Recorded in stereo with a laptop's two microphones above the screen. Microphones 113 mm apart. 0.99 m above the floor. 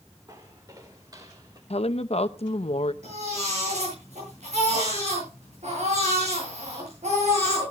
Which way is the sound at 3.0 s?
85° right.